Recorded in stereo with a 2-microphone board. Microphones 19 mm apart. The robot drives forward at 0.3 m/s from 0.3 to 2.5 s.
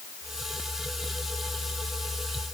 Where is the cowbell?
No cowbell in this recording.